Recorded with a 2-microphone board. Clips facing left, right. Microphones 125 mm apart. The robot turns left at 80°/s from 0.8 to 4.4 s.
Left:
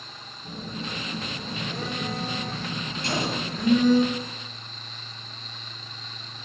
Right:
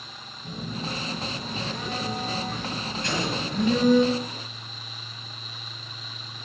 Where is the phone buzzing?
165° right, 6 m; by 4.0 s 65° right, 6 m.